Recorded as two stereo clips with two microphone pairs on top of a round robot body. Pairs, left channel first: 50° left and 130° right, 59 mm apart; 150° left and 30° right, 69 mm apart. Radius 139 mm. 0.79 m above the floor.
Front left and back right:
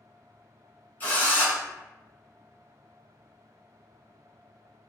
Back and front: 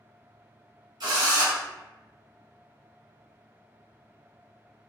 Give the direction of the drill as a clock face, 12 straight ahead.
12 o'clock.